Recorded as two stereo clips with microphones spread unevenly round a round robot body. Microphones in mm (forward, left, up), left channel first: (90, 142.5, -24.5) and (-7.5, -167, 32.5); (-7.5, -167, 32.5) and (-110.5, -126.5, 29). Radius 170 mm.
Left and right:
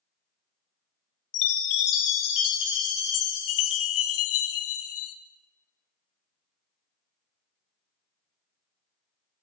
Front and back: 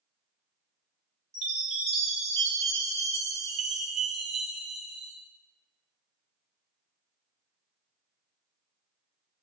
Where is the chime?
105° left, 0.7 m.